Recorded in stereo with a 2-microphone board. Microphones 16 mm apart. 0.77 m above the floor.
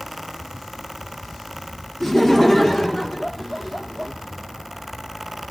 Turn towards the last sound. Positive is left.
turn(degrees=15)  # may be behind; listen again after turning